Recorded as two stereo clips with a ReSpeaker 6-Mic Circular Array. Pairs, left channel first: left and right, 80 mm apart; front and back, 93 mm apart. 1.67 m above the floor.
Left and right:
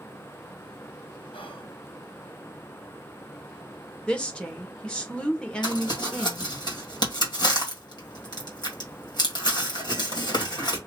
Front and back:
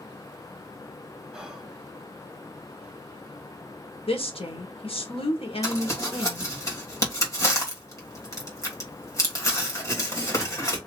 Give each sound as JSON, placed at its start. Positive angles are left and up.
{"t": 1.3, "sound": "whispering", "azimuth_deg": 95, "distance_m": 1.0}
{"t": 4.1, "sound": "a woman speaking", "azimuth_deg": 10, "distance_m": 1.2}
{"t": 5.6, "sound": "crumpling", "azimuth_deg": 55, "distance_m": 1.8}